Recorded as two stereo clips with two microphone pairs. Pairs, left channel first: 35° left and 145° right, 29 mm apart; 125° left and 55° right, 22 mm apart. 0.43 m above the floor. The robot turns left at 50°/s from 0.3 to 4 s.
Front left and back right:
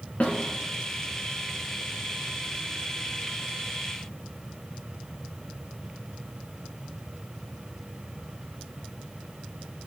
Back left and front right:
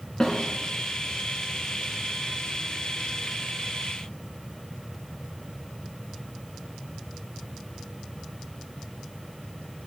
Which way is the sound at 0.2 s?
70° left.